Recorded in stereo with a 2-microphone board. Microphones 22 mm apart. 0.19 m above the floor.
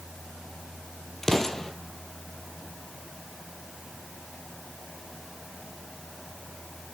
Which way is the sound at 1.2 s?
20° left (ahead or behind).